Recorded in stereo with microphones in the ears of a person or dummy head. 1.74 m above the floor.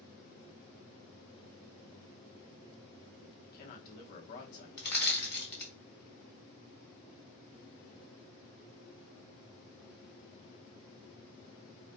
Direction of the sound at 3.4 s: 50° left (ahead or behind).